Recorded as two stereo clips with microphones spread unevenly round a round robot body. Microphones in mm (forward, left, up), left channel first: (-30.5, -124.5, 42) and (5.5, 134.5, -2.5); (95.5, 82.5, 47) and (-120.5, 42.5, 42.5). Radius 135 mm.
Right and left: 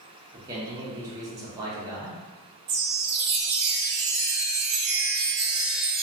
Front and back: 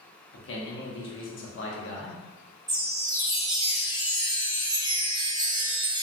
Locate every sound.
0.3 s a man speaking: 15° left, 0.8 m
2.7 s a chime: 115° left, 0.7 m